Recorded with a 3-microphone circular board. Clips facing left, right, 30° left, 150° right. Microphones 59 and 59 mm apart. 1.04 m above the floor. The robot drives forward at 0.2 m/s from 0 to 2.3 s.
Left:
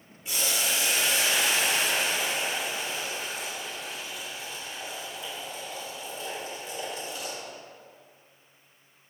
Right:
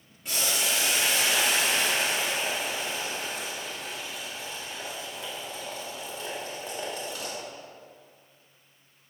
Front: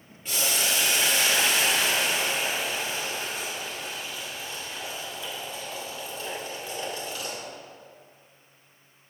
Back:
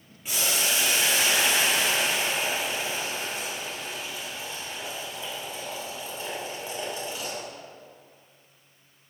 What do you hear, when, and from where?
0.2 s boiling: 75° right, 2.5 m; by 7.4 s 85° right, 2 m